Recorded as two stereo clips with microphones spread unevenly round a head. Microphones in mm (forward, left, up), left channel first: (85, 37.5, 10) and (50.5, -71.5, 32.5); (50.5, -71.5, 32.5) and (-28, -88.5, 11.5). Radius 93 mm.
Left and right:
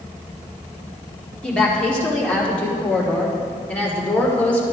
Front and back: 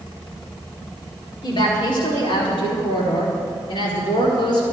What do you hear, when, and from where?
1.4 s a woman speaking: 10° right, 4 m; by 4.6 s 5° right, 5.5 m